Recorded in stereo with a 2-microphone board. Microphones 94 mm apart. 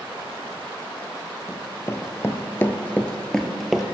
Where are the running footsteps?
30° left (ahead or behind), 1.0 m; by 3.8 s centre (ahead or behind), 0.9 m.